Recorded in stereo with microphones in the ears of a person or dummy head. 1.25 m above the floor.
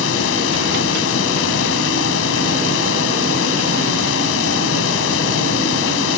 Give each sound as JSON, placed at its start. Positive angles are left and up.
{"t": 0.0, "sound": "a fan", "side_deg": 75}